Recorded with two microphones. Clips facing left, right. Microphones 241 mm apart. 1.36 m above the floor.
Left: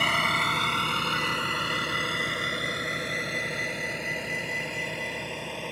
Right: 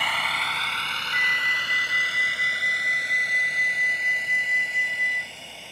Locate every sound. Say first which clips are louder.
0.0 s a vehicle: left 5 dB; 50° left (ahead or behind); by 5.7 s 70° left (ahead or behind)
1.1 s a flute: left 8 dB; 15° right (ahead or behind)